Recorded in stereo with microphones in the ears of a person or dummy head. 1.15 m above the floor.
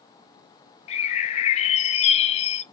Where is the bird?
35° left (ahead or behind), 0.7 m.